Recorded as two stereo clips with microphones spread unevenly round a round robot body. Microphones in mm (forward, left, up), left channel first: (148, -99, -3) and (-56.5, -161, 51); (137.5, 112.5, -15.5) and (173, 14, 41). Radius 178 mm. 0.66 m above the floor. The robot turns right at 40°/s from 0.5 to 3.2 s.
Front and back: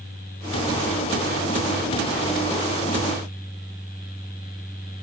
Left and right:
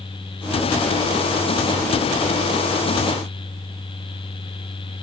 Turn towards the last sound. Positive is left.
No sound to turn to.